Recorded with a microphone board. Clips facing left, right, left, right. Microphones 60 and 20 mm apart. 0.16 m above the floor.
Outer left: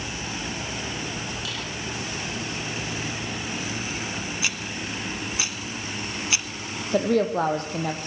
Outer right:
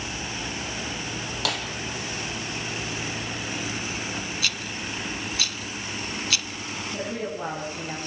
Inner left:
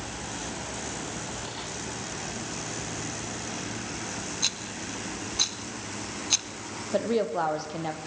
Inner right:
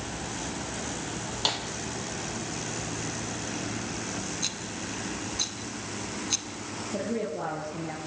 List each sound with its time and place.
1.4 s a snare drum: 70° right (ahead or behind), 4.5 m
4.4 s a rattle: 20° left (ahead or behind), 1.5 m
6.9 s a woman speaking: 75° left (ahead or behind), 5.5 m